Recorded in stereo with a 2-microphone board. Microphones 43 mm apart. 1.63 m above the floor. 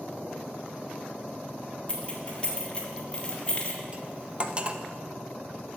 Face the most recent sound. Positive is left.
turn(degrees=-30)  # may be behind; listen again after turning